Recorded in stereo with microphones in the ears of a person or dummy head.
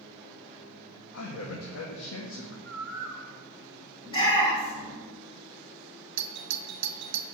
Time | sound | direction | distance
1.1 | a man speaking | 70° left (ahead or behind) | 2.0 m
2.6 | a bird | 5° left (ahead or behind) | 3 m
4.0 | a shout | 25° left (ahead or behind) | 8 m
6.2 | a doorbell | 60° right (ahead or behind) | 0.9 m